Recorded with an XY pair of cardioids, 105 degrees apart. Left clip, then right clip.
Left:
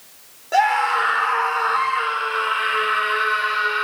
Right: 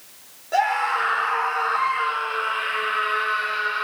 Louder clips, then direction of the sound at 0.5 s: Left 3 dB; 30° left.